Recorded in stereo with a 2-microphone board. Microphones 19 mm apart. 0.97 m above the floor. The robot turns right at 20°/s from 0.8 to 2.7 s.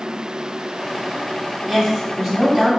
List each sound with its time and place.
1.7 s a woman speaking: 30° right (ahead or behind), 1.0 m; by 2.7 s 45° right (ahead or behind), 1.0 m